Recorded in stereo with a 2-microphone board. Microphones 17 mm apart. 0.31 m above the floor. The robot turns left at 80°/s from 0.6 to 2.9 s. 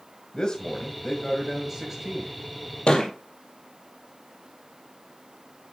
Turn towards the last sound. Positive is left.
turn(degrees=80)